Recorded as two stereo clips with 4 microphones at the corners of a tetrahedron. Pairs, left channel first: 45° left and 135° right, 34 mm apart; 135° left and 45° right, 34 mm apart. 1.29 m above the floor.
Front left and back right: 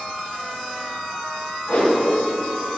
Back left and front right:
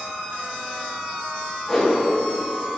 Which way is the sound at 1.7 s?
55° left.